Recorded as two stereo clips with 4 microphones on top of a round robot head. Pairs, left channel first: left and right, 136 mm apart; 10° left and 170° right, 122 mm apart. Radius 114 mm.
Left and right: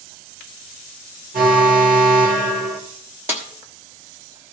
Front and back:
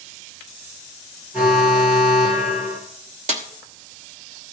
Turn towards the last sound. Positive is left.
turn(degrees=-165)